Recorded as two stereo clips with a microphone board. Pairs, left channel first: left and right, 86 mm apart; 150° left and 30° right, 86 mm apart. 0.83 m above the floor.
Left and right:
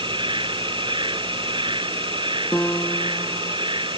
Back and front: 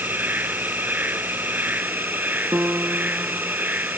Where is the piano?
25° left.